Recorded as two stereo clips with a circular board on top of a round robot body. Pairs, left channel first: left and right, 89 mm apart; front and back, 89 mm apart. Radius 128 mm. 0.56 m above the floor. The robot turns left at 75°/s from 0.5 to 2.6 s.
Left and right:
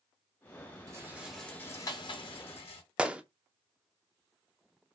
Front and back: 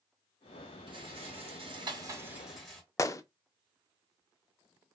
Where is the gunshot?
20° right, 0.5 m.